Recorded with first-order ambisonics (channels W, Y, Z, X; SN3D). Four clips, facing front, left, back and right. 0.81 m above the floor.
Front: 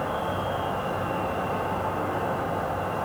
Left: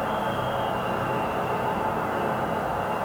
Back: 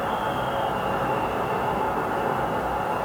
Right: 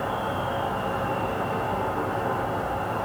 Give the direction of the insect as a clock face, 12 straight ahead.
7 o'clock.